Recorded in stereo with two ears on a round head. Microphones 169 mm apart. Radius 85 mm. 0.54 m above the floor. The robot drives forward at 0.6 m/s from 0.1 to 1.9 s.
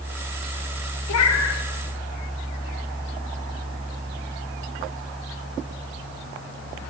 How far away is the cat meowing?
About 0.7 m.